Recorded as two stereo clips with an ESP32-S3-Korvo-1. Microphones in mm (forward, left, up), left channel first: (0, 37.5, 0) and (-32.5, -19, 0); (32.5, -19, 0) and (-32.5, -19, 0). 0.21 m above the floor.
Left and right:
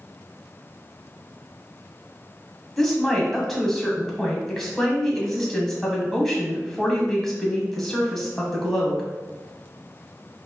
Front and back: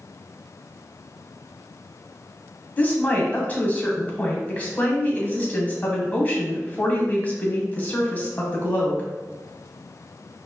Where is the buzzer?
I don't hear a buzzer.